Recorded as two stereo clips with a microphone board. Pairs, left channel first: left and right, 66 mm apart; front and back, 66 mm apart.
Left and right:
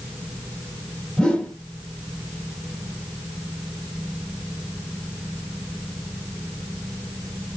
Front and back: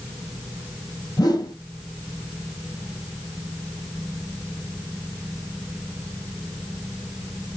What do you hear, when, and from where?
1.2 s a whoosh: 15° left, 1.9 m